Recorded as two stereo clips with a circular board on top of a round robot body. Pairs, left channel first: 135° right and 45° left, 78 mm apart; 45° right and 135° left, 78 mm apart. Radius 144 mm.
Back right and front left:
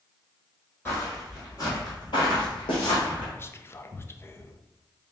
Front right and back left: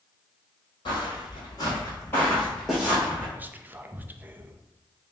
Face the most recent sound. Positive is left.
turn(degrees=-170)